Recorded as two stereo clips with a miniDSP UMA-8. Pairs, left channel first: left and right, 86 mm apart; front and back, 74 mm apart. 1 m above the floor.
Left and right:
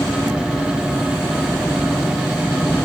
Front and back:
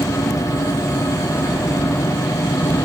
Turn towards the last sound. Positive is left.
turn(degrees=20)